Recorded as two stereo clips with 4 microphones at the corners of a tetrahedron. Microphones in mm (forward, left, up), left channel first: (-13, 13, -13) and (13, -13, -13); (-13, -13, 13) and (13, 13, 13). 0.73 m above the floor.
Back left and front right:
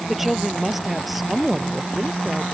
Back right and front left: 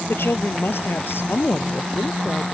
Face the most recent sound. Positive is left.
turn(degrees=-135)